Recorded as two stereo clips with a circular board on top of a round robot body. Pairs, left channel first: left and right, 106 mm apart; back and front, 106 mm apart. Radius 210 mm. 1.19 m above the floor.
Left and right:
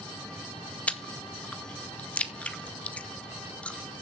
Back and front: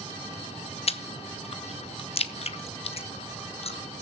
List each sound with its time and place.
0.9 s chewing: 165° left, 1.1 m